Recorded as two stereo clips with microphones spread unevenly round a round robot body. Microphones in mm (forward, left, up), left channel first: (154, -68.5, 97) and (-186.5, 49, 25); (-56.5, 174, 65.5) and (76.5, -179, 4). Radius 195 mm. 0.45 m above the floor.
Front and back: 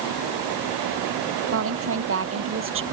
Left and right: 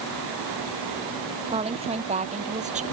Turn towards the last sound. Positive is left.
turn(degrees=-140)